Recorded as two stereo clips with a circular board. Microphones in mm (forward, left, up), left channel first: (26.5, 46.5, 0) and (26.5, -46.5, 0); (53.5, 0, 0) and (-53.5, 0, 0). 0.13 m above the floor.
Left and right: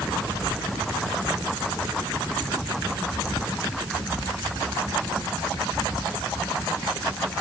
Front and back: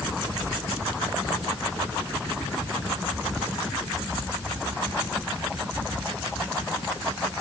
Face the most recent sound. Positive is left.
No sound to turn to.